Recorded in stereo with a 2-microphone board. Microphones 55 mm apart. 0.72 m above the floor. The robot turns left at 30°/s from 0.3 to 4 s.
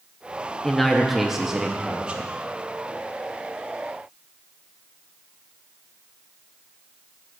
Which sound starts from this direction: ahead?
A man speaking, at 0.6 s.